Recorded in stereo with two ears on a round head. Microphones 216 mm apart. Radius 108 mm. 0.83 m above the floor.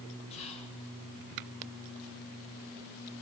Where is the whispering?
30° left (ahead or behind), 8 m.